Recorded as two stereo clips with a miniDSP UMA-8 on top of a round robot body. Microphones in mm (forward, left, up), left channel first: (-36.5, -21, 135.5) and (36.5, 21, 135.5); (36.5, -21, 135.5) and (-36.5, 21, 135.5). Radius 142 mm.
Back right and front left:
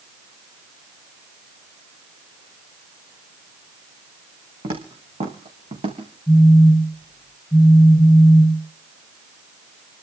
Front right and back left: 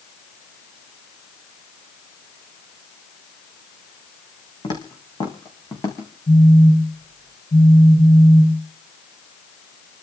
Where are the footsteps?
10° left, 3.5 m; by 6.1 s 30° left, 4.5 m.